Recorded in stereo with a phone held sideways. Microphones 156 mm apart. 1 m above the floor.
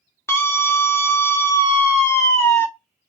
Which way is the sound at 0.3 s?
15° left (ahead or behind).